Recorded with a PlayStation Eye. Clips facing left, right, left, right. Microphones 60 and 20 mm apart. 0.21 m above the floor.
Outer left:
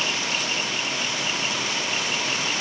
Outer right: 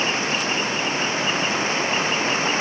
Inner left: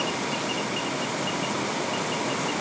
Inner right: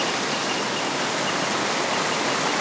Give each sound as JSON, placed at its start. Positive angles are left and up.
{"t": 0.0, "sound": "running water", "side_deg": -35}